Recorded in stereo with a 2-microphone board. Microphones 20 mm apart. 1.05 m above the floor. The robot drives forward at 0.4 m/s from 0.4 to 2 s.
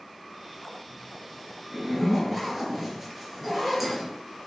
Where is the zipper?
10° right (ahead or behind), 3.5 m.